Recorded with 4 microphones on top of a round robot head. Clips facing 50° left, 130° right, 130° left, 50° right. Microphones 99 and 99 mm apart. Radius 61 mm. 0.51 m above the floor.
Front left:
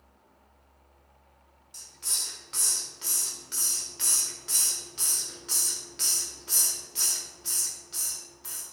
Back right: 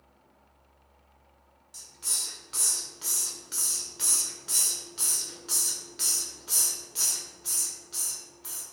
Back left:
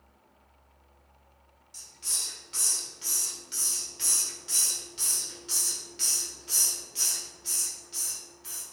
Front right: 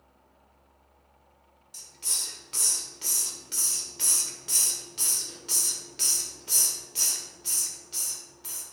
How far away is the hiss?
About 1.6 m.